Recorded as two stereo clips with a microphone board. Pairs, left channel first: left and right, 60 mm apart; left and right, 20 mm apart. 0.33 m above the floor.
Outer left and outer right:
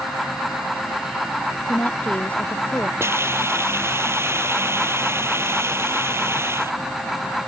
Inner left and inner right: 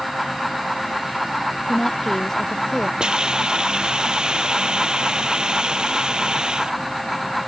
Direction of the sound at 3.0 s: 40° right (ahead or behind).